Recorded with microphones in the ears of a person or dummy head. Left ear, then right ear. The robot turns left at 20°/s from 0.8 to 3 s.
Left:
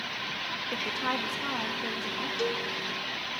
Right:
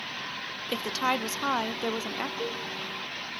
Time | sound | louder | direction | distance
0.7 | a woman speaking | right 4 dB | 90° right | 0.6 m
2.4 | a cowbell | left 3 dB | 75° left (ahead or behind) | 1.7 m